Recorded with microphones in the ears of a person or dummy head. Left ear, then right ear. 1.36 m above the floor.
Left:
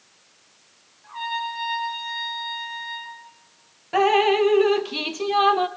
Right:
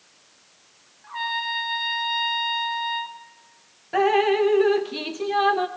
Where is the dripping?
15° left (ahead or behind), 0.8 m.